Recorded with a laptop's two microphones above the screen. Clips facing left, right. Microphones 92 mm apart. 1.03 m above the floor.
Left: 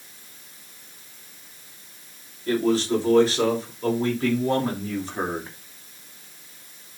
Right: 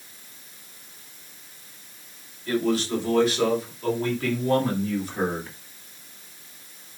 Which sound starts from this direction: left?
A man speaking, at 2.5 s.